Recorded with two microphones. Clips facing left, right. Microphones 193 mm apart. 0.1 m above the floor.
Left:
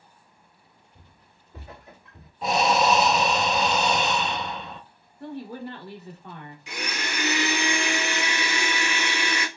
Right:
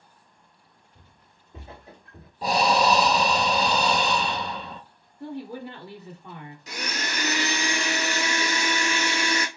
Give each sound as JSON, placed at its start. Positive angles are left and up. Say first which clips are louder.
{"t": 0.9, "sound": "footsteps", "louder": "left 1 dB", "side_deg": 0, "distance_m": 0.9}
{"t": 2.4, "sound": "breathing", "louder": "even", "side_deg": -35, "distance_m": 0.5}
{"t": 5.2, "sound": "a woman speaking", "louder": "even", "side_deg": -15, "distance_m": 1.3}
{"t": 6.7, "sound": "a blender", "louder": "even", "side_deg": -40, "distance_m": 0.6}